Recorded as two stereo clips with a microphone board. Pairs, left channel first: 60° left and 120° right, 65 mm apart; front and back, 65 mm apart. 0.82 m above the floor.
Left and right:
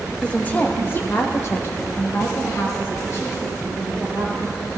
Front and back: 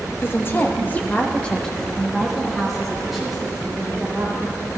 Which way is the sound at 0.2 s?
Straight ahead.